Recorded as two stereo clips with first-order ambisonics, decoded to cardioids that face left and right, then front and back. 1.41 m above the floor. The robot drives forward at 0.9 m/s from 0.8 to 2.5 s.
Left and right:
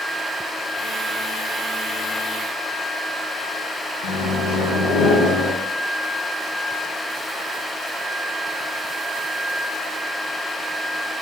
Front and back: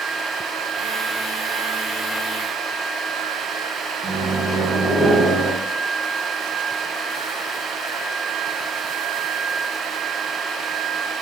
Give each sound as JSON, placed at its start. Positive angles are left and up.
{"t": 4.0, "sound": "a microwave", "azimuth_deg": 100, "distance_m": 0.9}